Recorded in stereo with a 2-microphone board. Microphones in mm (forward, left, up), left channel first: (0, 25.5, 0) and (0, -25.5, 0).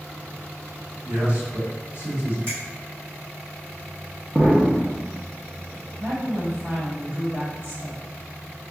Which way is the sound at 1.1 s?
50° right (ahead or behind).